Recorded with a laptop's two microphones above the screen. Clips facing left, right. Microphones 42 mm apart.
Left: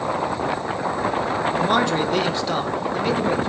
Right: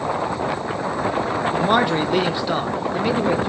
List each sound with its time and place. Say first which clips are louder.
1.5 s a man speaking: right 2 dB; 10° right (ahead or behind), 0.8 m